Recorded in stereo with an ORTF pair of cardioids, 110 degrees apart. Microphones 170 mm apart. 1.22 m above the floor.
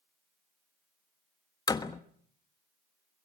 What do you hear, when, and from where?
1.7 s a door slam: 25° left, 1.3 m